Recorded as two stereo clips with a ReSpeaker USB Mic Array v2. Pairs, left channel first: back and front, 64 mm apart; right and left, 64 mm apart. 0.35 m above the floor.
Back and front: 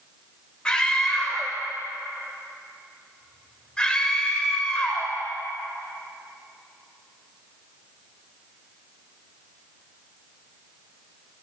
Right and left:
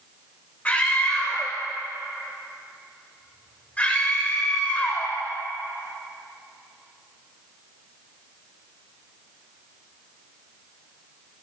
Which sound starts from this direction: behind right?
A scream, at 0.7 s.